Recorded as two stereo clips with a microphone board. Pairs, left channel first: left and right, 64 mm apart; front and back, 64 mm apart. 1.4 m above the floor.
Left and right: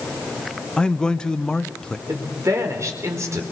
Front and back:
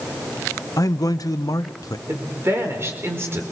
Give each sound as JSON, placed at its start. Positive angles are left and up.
{"t": 0.8, "sound": "a man speaking", "azimuth_deg": 15, "distance_m": 1.4}
{"t": 2.1, "sound": "a woman speaking", "azimuth_deg": -130, "distance_m": 4.5}